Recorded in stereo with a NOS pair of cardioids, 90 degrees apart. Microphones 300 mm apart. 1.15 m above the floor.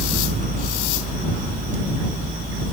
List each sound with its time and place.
0.0 s a fan: 25° right